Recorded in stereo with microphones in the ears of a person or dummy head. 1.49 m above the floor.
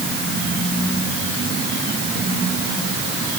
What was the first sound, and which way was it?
Only background noise.